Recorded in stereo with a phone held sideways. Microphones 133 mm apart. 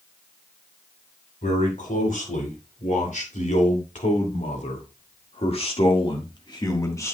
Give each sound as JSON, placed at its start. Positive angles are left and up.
{"t": 1.4, "sound": "a man speaking", "side_deg": 75, "distance_m": 4.0}